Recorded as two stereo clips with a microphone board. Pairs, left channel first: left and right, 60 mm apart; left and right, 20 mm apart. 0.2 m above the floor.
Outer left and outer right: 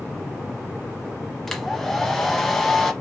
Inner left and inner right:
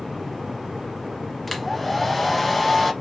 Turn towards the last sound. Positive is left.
turn(degrees=5)  # may be behind; listen again after turning